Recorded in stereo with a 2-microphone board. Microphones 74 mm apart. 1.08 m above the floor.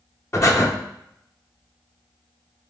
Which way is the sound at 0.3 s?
40° left (ahead or behind).